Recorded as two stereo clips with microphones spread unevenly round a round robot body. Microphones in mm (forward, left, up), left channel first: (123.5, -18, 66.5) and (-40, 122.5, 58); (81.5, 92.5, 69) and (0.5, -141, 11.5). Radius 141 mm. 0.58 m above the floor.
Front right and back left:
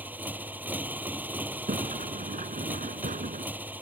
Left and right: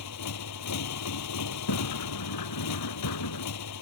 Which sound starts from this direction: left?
A sliding door, at 1.7 s.